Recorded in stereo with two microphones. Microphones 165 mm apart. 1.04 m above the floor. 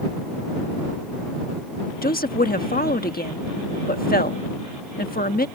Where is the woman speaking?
75° left (ahead or behind).